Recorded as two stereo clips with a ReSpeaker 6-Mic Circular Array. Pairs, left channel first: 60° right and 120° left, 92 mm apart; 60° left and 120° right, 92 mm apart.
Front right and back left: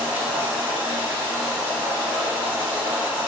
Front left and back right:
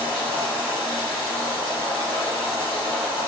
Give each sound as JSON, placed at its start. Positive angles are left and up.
{"t": 0.0, "sound": "running water", "azimuth_deg": 45, "distance_m": 1.7}